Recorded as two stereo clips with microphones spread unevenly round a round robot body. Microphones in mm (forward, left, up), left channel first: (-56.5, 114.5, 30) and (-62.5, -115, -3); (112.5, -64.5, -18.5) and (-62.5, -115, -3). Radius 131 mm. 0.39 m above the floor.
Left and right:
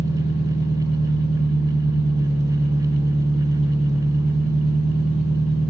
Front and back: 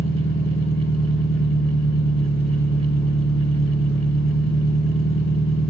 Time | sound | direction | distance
0.0 | an engine running | 25° left | 5 m